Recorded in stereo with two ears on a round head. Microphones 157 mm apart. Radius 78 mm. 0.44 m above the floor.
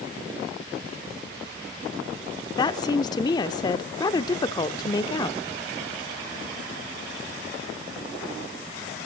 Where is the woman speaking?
25° left (ahead or behind), 0.7 m.